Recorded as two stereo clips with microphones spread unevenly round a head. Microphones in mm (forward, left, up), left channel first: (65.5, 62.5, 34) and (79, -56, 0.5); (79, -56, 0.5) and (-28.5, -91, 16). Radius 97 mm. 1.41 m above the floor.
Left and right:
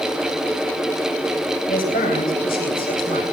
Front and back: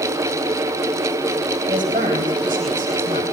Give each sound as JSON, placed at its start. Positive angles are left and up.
{"t": 1.7, "sound": "a woman speaking", "azimuth_deg": 130, "distance_m": 9.5}